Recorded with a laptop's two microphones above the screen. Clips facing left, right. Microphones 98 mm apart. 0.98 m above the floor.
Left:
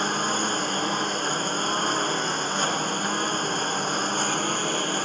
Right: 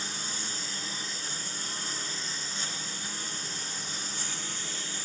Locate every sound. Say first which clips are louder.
0.0 s a lawn mower: left 15 dB; 60° left (ahead or behind)